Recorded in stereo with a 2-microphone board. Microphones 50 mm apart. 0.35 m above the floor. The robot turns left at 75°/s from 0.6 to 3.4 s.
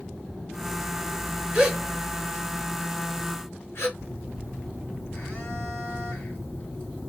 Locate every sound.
1.5 s a gasp: 20° right (ahead or behind), 2 m; by 3.9 s 60° left (ahead or behind), 2 m
4.0 s a phone buzzing: 50° left (ahead or behind), 2.5 m